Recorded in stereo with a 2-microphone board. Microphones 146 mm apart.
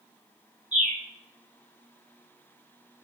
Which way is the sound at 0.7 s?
55° right (ahead or behind).